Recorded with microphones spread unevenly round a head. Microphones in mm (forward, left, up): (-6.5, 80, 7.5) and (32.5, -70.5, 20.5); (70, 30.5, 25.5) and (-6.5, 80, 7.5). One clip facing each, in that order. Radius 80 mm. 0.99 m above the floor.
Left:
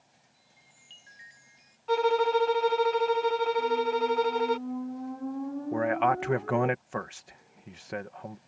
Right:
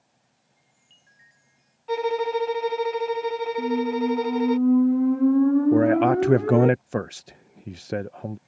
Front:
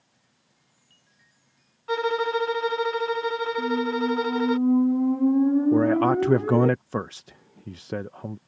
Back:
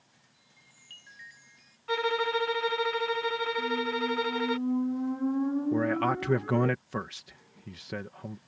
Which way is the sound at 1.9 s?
Straight ahead.